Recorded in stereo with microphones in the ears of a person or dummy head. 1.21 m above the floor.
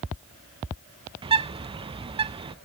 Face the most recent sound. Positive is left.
turn(degrees=-25)  # may be behind; listen again after turning